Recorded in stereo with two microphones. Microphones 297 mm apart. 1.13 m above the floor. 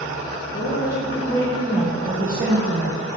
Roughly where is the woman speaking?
Left.